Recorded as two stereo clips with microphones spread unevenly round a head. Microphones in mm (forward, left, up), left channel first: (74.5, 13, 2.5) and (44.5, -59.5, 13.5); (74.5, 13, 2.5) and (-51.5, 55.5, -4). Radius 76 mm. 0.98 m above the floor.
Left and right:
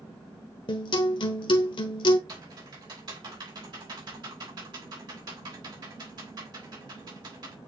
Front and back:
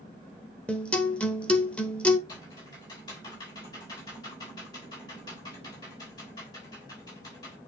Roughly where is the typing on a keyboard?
Right.